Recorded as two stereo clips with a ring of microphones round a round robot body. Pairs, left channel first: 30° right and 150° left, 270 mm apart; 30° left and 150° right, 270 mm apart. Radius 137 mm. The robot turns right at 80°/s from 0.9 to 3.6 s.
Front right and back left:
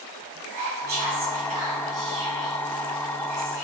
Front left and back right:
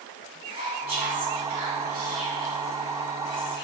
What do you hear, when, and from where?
0.5 s whispering: 155° left, 1.1 m; by 3.6 s 10° left, 1.1 m